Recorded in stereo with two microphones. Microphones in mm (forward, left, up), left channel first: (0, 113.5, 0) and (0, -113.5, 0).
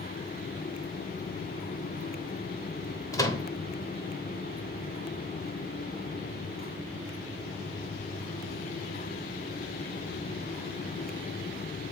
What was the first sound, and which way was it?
A microwave, 15° left (ahead or behind).